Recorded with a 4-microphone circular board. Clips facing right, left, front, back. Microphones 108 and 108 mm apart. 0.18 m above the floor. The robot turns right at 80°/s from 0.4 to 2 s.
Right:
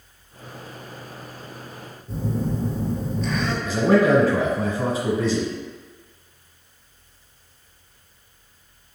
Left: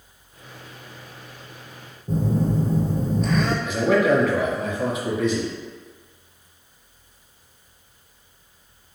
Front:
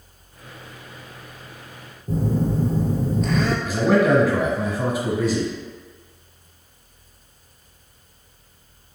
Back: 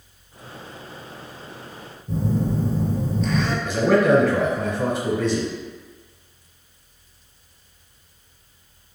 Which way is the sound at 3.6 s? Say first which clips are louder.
Right 3 dB, back 1 dB; 80° right.